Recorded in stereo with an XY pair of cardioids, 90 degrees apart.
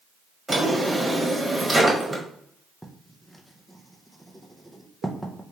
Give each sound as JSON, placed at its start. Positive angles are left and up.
{"t": 0.5, "sound": "a drawer", "azimuth_deg": -10, "distance_m": 1.4}
{"t": 2.8, "sound": "writing", "azimuth_deg": 5, "distance_m": 0.7}